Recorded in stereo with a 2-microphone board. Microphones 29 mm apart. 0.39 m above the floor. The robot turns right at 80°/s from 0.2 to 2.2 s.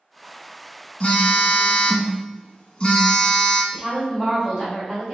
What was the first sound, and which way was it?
A phone buzzing, 50° left.